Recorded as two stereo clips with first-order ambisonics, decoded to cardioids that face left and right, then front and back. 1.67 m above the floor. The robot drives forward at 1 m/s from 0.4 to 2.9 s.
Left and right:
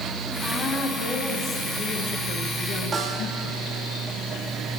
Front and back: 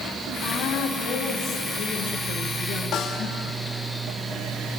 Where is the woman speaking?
25° left, 3.5 m; by 3.8 s 60° left, 1.7 m.